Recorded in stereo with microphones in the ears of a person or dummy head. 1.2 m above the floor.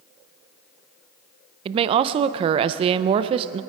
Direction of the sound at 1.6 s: 35° right (ahead or behind).